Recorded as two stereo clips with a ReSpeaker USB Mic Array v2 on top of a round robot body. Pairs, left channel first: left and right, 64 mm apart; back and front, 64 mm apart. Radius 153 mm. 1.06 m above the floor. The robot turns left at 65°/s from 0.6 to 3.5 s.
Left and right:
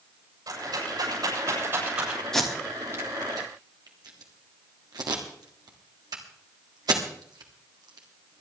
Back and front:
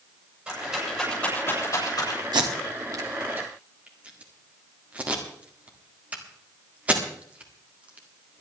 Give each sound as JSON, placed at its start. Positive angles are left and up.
{"t": 0.5, "sound": "a rattle", "azimuth_deg": -75, "distance_m": 8.0}
{"t": 2.3, "sound": "tape being pulled", "azimuth_deg": 5, "distance_m": 1.8}